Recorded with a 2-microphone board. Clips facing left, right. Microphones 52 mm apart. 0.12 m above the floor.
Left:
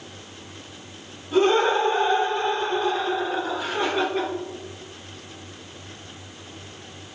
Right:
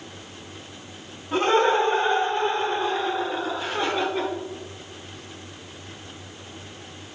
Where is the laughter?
35° right (ahead or behind), 1.9 m; by 4.3 s 20° left (ahead or behind), 2 m.